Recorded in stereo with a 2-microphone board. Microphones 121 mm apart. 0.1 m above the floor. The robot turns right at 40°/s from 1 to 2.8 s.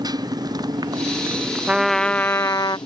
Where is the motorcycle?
35° right; by 2.9 s 40° left.